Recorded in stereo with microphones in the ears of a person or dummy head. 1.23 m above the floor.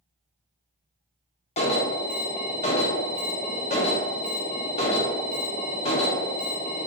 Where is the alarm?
30° left (ahead or behind), 0.6 m.